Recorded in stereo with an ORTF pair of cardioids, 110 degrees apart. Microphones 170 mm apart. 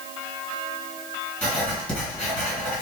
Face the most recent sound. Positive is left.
turn(degrees=5)